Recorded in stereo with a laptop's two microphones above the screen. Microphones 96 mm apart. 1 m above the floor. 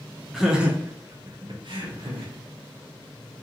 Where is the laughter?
5° right (ahead or behind), 0.8 m; by 2.3 s 60° right (ahead or behind), 1.0 m.